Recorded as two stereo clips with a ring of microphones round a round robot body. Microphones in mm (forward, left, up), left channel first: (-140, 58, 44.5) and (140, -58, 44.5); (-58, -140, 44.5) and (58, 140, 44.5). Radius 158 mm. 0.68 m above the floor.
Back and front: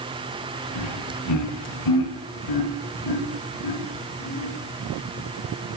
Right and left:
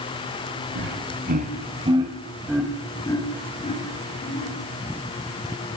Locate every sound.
0.8 s laughter: 120° left, 4 m; by 4.5 s 170° right, 5 m